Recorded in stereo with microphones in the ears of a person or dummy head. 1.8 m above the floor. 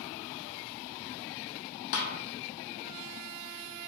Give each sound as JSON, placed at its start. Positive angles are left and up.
{"t": 1.9, "sound": "a snare drum", "side_deg": 60, "distance_m": 0.8}